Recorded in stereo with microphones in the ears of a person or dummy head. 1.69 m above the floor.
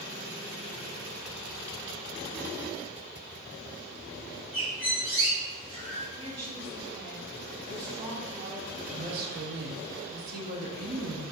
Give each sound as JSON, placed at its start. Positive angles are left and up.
{"t": 4.5, "sound": "a bird", "side_deg": -25, "distance_m": 1.9}
{"t": 6.2, "sound": "a woman speaking", "side_deg": -45, "distance_m": 1.0}
{"t": 8.9, "sound": "a woman speaking", "side_deg": -60, "distance_m": 0.8}